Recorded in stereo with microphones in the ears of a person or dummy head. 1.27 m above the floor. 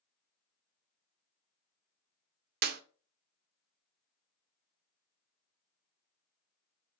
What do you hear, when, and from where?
2.6 s a clap: 50° right (ahead or behind), 0.6 m